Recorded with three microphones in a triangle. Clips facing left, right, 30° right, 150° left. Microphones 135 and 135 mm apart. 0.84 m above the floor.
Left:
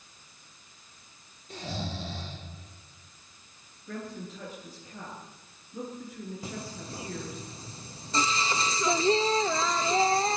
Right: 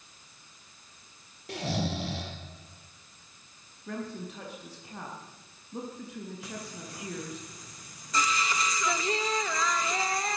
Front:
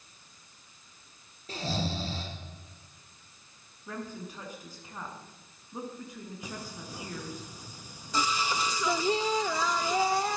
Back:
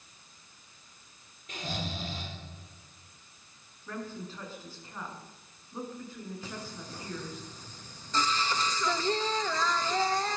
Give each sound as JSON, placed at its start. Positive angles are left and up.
{"t": 1.5, "sound": "snoring", "azimuth_deg": -85, "distance_m": 3.5}
{"t": 3.9, "sound": "a woman speaking", "azimuth_deg": -105, "distance_m": 7.5}
{"t": 6.4, "sound": "singing", "azimuth_deg": 45, "distance_m": 0.9}